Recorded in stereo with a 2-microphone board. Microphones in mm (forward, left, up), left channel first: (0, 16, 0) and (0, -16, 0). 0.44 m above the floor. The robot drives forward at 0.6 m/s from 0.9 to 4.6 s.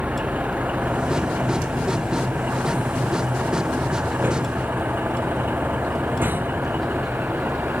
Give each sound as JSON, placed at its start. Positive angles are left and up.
{"t": 0.0, "sound": "a vehicle", "side_deg": -55}